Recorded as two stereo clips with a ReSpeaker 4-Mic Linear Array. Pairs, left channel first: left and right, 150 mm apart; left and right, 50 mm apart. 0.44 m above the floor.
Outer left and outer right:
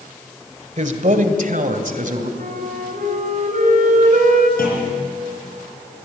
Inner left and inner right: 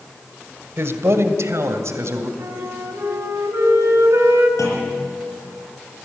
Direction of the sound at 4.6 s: 75° left (ahead or behind).